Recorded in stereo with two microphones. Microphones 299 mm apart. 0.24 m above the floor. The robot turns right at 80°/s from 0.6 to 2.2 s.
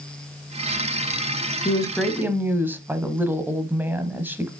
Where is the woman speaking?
145° left, 1.1 m; by 4.5 s 170° right, 1.1 m.